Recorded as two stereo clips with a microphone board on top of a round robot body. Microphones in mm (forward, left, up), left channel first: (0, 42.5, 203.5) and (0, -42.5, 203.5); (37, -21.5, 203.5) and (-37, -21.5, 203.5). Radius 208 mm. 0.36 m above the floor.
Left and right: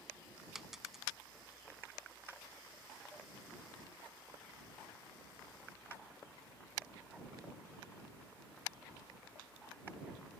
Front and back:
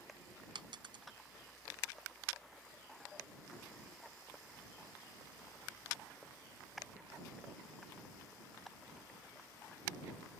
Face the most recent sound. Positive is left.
turn(degrees=-175)